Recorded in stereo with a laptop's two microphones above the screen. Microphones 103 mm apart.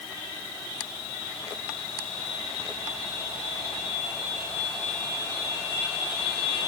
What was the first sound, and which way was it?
Only background noise.